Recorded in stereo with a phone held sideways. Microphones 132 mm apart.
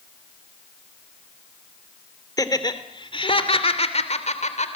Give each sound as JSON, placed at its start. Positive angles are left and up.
{"t": 2.4, "sound": "laughter", "side_deg": 30, "distance_m": 2.5}